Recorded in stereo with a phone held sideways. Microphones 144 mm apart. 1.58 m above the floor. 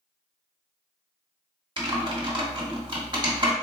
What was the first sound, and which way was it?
Typing on a keyboard, 35° right (ahead or behind).